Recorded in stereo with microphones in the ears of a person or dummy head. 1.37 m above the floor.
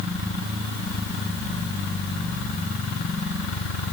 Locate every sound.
Only background noise.